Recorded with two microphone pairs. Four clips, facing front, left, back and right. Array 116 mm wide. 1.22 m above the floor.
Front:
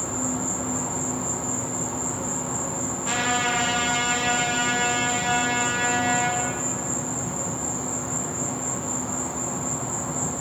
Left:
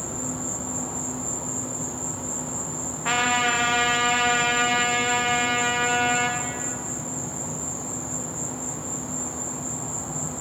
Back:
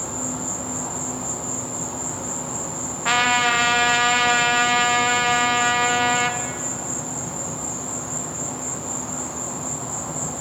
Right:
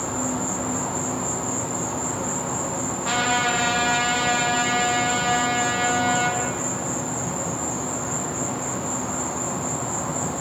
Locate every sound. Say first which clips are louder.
0.0 s an insect: right 6 dB, front 1 dB; 100° right, 0.9 m
3.0 s a trumpet: even, back 6 dB; straight behind, 0.8 m